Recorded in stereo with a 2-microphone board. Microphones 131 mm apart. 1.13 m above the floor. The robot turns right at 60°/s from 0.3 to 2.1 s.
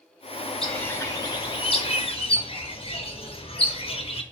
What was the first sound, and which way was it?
A bird, 5° left.